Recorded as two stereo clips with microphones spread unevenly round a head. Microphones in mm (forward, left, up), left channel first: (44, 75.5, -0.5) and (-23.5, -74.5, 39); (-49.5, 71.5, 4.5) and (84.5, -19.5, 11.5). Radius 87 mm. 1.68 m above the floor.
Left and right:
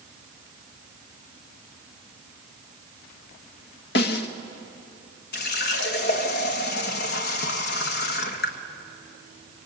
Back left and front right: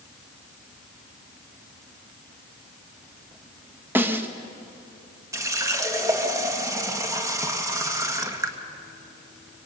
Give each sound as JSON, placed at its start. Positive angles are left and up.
{"t": 4.0, "sound": "a snare drum", "azimuth_deg": 40, "distance_m": 1.2}
{"t": 5.3, "sound": "a running tap", "azimuth_deg": 35, "distance_m": 1.5}